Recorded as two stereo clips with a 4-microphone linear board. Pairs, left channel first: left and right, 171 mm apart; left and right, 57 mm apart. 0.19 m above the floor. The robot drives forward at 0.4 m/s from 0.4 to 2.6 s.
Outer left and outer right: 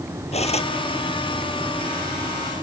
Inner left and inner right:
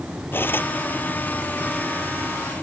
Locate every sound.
0.3 s cutlery clinking: 40° left (ahead or behind)